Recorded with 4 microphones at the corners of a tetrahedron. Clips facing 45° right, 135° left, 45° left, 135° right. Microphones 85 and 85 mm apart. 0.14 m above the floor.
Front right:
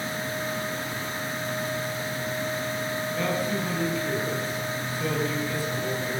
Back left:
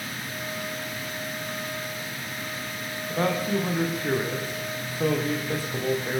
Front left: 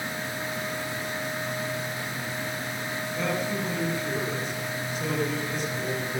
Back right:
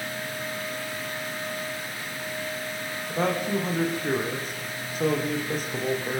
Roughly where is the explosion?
No explosion in this recording.